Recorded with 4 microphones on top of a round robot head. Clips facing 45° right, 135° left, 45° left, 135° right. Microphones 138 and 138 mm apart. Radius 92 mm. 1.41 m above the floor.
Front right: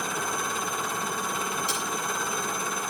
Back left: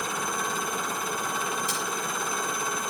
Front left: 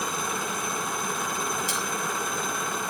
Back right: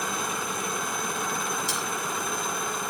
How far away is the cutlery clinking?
About 8 m.